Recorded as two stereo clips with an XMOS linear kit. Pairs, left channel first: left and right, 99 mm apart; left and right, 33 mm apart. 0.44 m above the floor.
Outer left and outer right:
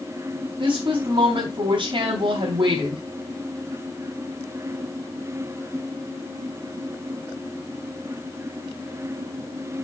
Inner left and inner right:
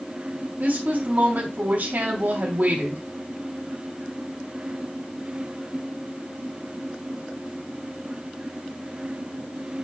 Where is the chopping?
No chopping in this recording.